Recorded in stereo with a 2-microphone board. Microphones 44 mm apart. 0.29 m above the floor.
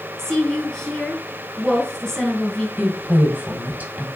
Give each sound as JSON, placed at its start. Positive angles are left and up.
{"t": 0.2, "sound": "a woman speaking", "side_deg": 10, "distance_m": 3.0}
{"t": 2.8, "sound": "a woman speaking", "side_deg": -40, "distance_m": 1.9}